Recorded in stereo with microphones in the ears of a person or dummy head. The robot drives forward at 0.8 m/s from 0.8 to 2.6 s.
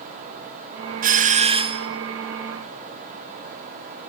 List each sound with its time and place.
1.0 s a doorbell: 40° right (ahead or behind), 0.7 m; by 1.9 s 25° right (ahead or behind), 1.2 m